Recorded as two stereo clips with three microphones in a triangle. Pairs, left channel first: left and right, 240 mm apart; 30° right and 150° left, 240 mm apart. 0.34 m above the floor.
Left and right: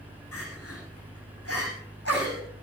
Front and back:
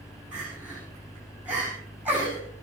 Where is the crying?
65° left, 9.5 m.